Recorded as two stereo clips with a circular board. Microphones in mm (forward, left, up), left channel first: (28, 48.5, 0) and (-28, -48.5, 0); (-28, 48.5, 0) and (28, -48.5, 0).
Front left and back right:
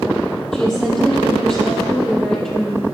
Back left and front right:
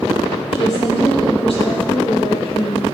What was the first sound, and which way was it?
A woman speaking, 145° left.